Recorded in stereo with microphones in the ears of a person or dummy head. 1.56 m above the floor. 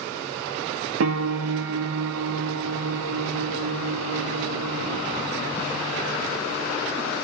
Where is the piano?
80° right, 0.6 m.